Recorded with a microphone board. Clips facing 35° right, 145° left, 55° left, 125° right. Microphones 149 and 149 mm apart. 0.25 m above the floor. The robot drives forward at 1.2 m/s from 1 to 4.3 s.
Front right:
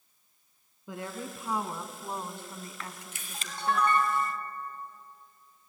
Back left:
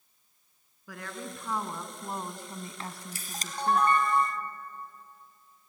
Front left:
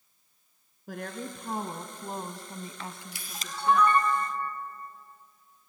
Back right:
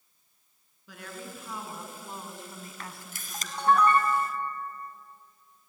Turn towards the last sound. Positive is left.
turn(degrees=-170)